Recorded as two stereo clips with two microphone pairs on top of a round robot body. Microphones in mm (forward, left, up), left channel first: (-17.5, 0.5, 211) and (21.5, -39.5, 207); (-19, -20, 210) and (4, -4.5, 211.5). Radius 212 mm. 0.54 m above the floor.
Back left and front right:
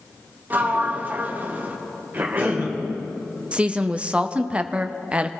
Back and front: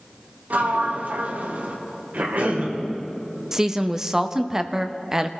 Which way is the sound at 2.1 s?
15° left.